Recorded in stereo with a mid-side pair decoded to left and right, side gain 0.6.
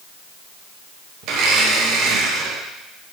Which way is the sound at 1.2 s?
65° right.